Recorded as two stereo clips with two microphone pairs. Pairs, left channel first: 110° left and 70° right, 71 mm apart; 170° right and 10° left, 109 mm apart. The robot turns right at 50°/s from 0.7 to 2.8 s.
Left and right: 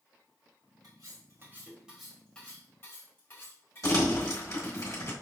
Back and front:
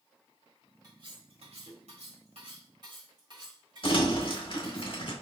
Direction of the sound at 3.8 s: 150° left.